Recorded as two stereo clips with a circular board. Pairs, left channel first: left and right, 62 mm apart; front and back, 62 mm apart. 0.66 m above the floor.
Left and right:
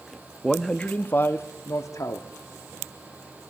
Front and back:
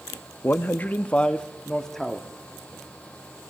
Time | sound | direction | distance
0.4 | a man speaking | 5° left | 0.6 m